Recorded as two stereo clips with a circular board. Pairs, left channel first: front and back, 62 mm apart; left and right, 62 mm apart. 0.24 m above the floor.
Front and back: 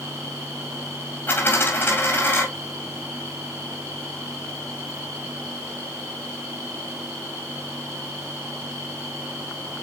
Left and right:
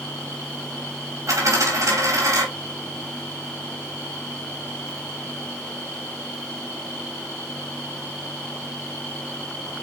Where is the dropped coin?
50° right, 3.5 m.